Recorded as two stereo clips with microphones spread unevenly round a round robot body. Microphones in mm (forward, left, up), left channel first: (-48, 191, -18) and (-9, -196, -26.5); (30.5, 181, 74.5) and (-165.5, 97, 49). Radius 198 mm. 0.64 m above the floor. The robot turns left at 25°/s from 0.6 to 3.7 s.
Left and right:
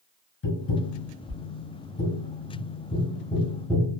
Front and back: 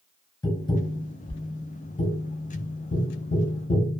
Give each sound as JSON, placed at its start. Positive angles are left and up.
{"t": 0.4, "sound": "tapping", "azimuth_deg": 90, "distance_m": 1.2}